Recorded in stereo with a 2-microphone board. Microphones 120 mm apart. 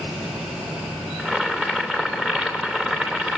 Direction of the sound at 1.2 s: 5° right (ahead or behind).